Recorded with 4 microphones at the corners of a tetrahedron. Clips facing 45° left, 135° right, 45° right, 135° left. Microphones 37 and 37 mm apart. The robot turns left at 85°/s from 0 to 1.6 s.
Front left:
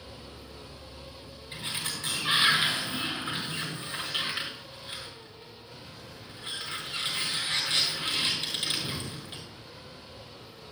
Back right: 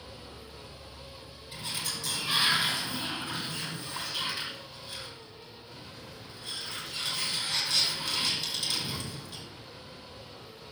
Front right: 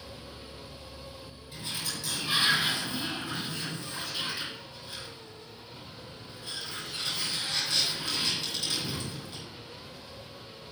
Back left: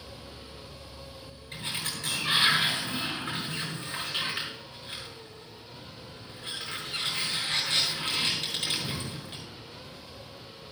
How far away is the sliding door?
About 7 m.